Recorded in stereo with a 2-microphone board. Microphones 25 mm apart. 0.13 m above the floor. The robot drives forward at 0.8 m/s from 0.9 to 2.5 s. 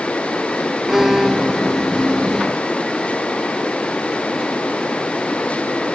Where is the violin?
15° right (ahead or behind); by 1.9 s 25° right (ahead or behind).